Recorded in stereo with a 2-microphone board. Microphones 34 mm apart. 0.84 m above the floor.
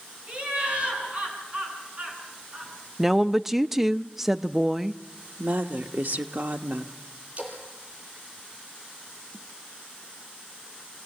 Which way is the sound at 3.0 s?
10° right (ahead or behind).